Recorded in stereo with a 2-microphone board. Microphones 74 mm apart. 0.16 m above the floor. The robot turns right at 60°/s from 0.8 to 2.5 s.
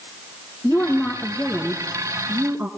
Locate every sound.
0.6 s a woman speaking: 130° left, 2.0 m; by 2.7 s 125° right, 2.0 m